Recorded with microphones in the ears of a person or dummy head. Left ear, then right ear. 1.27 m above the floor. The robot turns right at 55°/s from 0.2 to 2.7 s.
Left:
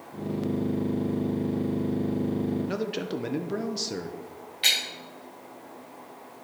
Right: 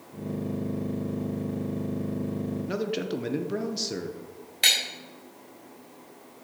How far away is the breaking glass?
About 4 m.